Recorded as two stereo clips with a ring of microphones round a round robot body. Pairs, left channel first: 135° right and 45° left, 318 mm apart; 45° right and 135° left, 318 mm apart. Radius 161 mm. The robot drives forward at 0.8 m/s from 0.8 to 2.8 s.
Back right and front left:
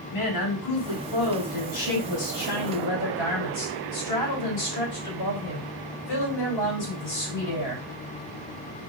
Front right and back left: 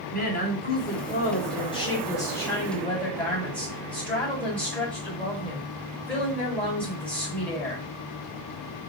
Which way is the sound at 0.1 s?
105° right.